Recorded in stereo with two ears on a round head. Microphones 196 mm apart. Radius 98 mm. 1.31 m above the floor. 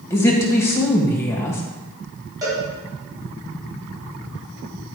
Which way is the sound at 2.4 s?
15° right (ahead or behind).